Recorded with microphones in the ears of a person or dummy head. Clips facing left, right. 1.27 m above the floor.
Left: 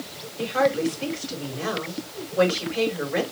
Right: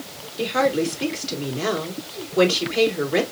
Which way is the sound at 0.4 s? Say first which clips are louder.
Right 1 dB; 50° right (ahead or behind).